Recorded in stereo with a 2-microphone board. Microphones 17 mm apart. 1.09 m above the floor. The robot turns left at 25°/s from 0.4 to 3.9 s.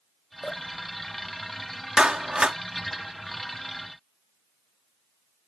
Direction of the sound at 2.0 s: 55° right (ahead or behind).